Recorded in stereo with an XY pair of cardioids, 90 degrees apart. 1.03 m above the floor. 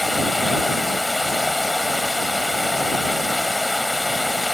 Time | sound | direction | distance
0.0 | running water | 10° left | ?